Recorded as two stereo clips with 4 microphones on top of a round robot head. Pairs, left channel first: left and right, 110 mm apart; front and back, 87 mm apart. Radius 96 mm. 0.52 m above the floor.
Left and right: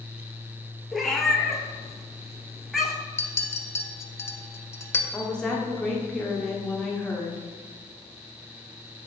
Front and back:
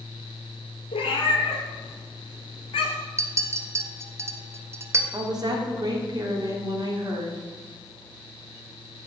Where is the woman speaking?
170° left, 1.5 m.